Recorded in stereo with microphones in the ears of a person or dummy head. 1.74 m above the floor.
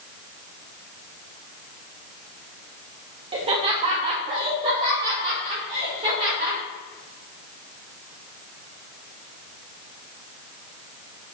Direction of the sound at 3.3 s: 25° right (ahead or behind).